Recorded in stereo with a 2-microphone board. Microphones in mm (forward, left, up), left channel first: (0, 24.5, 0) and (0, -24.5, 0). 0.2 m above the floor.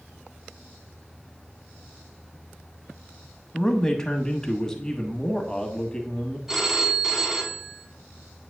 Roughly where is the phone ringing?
Centre.